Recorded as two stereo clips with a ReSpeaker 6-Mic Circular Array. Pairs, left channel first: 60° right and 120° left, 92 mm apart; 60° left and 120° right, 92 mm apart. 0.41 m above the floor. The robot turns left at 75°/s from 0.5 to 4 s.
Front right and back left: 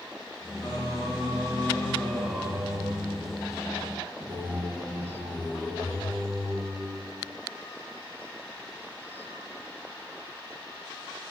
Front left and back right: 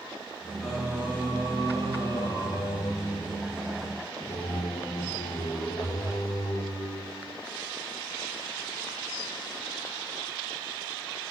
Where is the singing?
35° right, 2 m; by 7.4 s 70° left, 2 m.